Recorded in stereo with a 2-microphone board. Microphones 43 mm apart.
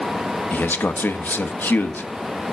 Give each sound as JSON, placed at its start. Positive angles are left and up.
{"t": 0.5, "sound": "a man speaking", "side_deg": 50, "distance_m": 1.1}